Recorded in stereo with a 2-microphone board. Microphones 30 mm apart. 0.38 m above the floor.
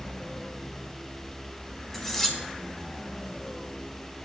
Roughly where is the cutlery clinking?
Centre.